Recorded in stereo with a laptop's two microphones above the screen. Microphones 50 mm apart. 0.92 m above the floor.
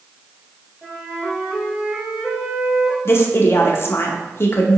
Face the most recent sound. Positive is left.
turn(degrees=50)  # may be behind; listen again after turning